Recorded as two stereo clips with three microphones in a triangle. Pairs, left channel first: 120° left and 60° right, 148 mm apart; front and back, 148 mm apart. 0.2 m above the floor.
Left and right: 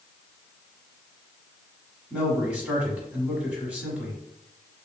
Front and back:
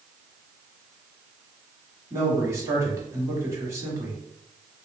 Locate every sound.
2.1 s a man speaking: 135° right, 1.2 m